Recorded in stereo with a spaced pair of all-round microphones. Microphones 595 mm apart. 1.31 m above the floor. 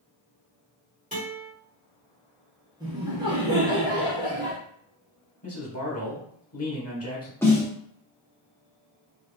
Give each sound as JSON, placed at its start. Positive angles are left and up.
{"t": 1.1, "sound": "a guitar", "side_deg": -15, "distance_m": 1.6}
{"t": 2.8, "sound": "laughter", "side_deg": -5, "distance_m": 1.4}
{"t": 5.4, "sound": "a man speaking", "side_deg": 25, "distance_m": 1.1}
{"t": 7.4, "sound": "a snare drum", "side_deg": 5, "distance_m": 0.8}